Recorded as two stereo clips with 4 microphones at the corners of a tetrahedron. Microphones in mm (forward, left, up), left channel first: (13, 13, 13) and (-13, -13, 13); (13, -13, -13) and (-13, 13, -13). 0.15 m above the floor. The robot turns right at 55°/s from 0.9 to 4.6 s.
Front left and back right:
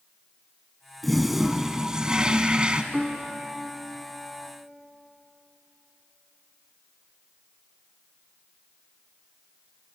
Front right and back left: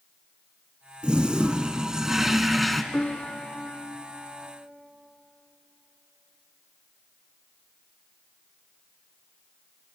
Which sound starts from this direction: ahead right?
A piano, at 2.9 s.